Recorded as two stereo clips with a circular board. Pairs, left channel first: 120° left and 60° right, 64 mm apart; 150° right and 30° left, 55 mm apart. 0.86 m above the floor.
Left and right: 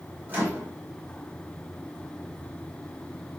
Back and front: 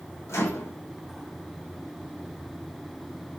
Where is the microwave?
120° right, 1.7 m.